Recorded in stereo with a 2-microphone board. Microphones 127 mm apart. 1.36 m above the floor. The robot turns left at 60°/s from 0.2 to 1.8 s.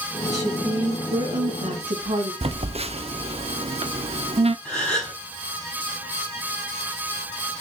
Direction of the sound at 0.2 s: 10° left.